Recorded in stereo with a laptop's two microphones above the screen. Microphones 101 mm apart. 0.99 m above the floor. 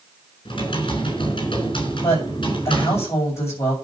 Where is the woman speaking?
30° left (ahead or behind), 7 m.